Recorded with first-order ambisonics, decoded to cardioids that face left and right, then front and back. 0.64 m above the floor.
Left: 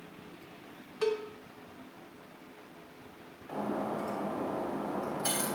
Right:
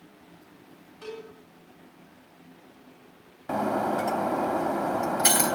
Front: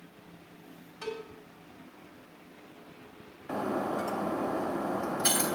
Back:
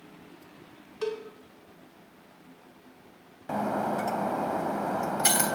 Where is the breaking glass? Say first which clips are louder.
Right 9 dB, back 3 dB; 115° right, 0.7 m.